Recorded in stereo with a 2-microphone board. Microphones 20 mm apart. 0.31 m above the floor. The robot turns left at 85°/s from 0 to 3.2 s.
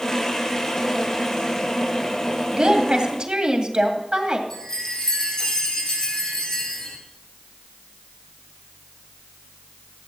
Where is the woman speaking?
40° right, 2 m; by 4.4 s 100° right, 2 m.